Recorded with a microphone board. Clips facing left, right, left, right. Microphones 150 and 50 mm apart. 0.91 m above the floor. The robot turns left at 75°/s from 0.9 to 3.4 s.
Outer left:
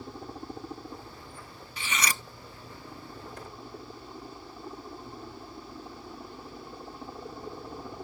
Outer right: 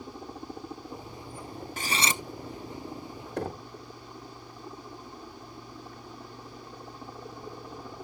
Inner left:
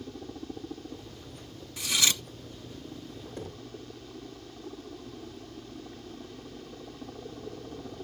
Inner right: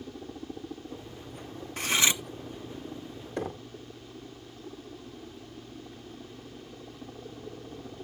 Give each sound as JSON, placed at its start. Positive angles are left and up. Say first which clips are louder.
{"t": 0.0, "sound": "a helicopter", "louder": "even, even", "azimuth_deg": 0}
{"t": 1.8, "sound": "cutlery clinking", "louder": "outer right 2 dB, inner right 2 dB", "azimuth_deg": -135}
{"t": 3.4, "sound": "knocking", "louder": "outer right 10 dB, inner right 8 dB", "side_deg": -75}